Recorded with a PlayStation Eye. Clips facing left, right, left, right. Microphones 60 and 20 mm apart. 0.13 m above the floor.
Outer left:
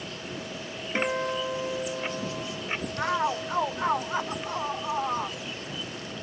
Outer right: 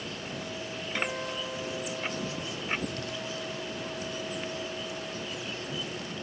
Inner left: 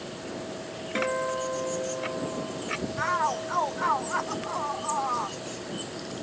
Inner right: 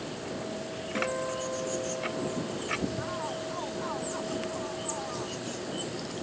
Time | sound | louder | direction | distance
0.9 | a guitar | outer left 7 dB, inner left 4 dB | 30° left (ahead or behind) | ?
3.0 | a shout | outer left 10 dB, inner left 8 dB | 70° left (ahead or behind) | ?